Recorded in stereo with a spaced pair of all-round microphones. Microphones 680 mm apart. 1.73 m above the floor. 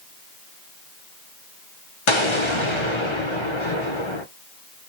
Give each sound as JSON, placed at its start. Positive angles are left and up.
{"t": 2.1, "sound": "an explosion", "side_deg": 45, "distance_m": 0.7}